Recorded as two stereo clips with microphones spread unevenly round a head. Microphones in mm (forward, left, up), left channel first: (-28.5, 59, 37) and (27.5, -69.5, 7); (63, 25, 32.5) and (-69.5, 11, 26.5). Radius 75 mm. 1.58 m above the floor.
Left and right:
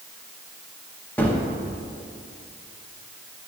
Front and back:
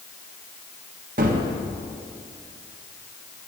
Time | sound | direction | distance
1.2 | a gunshot | straight behind | 1.0 m